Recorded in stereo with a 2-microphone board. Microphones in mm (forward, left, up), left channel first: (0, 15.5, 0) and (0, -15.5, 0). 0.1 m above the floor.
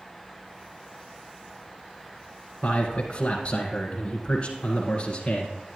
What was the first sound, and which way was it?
A man speaking, 30° left (ahead or behind).